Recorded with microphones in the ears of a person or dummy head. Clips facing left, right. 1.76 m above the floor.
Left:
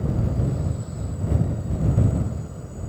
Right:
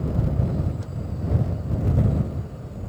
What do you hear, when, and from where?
Only background noise.